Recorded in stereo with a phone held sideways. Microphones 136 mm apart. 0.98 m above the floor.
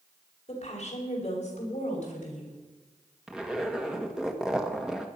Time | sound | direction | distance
0.5 | a woman speaking | 50° left (ahead or behind) | 5 m
3.3 | a zipper | 5° right (ahead or behind) | 1.5 m